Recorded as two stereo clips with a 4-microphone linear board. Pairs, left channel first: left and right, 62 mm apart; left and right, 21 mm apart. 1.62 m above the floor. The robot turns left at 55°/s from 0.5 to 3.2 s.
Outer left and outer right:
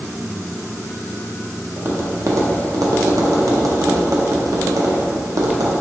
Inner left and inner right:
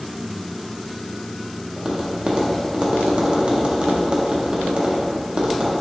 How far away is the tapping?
About 0.5 m.